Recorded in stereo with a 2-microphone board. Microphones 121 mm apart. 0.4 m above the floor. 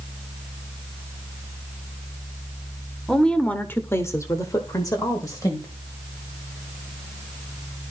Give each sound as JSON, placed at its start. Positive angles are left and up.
{"t": 3.1, "sound": "a woman speaking", "side_deg": 5, "distance_m": 1.2}